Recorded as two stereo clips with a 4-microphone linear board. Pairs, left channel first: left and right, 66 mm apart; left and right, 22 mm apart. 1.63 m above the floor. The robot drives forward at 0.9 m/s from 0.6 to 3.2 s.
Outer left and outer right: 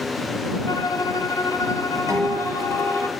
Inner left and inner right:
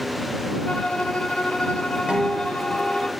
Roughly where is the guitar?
Right.